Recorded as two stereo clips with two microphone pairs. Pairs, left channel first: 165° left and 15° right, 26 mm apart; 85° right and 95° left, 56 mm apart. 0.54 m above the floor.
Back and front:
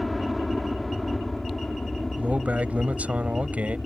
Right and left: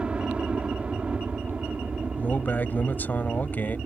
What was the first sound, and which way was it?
A helicopter, 90° left.